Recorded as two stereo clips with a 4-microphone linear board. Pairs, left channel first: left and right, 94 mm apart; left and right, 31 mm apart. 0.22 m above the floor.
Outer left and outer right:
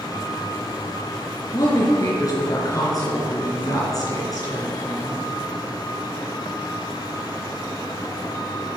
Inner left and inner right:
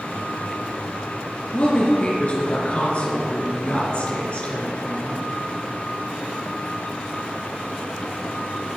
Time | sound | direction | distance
1.5 | a woman speaking | 40° left (ahead or behind) | 3.5 m